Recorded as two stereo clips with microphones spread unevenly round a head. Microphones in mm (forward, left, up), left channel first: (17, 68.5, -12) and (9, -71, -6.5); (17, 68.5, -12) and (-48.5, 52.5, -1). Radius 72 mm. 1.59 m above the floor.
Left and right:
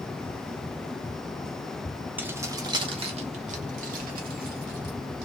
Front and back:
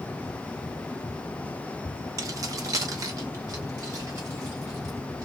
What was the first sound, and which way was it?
Keys jangling, 170° right.